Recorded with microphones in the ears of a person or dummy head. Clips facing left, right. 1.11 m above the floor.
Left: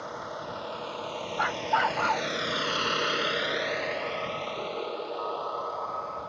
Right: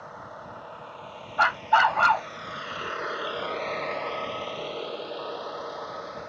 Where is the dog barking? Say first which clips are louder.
Right 5 dB; 60° right (ahead or behind).